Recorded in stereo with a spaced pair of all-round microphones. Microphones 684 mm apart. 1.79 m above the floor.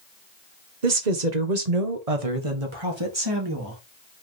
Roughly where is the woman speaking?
Right.